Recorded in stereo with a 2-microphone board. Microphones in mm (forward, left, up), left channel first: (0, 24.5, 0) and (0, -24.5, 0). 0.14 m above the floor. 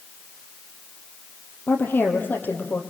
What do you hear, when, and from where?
1.7 s a woman speaking: 45° left (ahead or behind), 4 m